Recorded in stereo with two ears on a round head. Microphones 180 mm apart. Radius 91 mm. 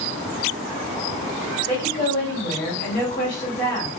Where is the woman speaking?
45° left (ahead or behind), 1.5 m.